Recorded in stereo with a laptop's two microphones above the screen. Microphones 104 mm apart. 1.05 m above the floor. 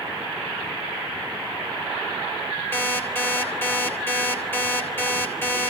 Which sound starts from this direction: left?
An alarm clock, at 2.7 s.